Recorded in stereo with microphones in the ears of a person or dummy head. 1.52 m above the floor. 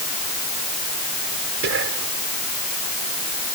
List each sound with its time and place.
1.6 s whispering: 70° right (ahead or behind)